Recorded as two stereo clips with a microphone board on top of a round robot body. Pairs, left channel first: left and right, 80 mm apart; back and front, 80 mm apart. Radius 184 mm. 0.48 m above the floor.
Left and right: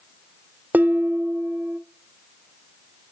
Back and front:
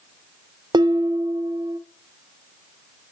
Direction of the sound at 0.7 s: 20° right.